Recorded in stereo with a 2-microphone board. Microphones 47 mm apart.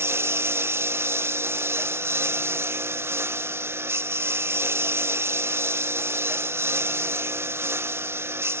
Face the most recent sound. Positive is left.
turn(degrees=-60)  # may be behind; listen again after turning